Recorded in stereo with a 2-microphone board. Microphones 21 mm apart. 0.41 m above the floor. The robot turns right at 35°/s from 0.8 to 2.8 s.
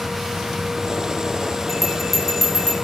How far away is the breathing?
I don't hear breathing.